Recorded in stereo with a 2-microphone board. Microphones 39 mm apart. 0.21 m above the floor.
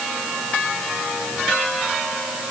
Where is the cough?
I don't hear a cough.